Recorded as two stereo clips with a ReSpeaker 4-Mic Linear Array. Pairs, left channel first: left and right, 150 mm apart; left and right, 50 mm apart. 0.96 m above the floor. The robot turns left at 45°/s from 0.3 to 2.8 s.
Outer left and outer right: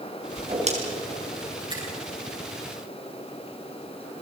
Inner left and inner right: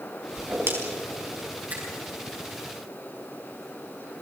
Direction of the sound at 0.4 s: 35° right (ahead or behind).